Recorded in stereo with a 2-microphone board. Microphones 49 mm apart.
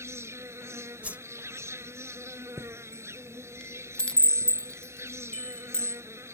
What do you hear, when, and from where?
0.0 s an insect: 70° right (ahead or behind)
1.0 s a whoosh: 30° right (ahead or behind)
2.6 s a chime: 20° left (ahead or behind)